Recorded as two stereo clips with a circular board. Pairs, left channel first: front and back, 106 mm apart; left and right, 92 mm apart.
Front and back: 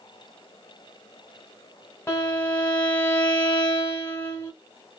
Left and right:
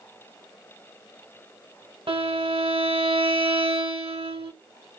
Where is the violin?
70° right, 0.9 m.